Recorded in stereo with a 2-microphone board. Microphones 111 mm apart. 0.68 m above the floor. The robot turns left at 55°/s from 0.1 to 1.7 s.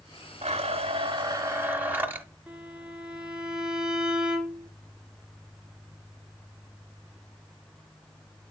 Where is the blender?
90° right, 1.1 m; by 2.2 s 160° right, 1.1 m.